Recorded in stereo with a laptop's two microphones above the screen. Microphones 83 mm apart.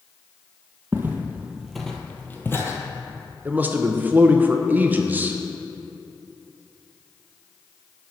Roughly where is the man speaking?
Right.